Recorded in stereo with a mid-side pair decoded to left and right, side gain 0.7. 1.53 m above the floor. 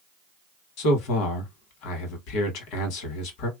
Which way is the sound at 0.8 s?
70° left.